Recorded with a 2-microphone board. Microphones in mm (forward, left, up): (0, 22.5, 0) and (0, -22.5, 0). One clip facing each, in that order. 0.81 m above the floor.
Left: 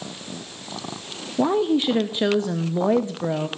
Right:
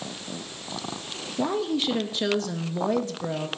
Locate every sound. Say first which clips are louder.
1.4 s a woman speaking: left 6 dB; 25° left (ahead or behind), 0.5 m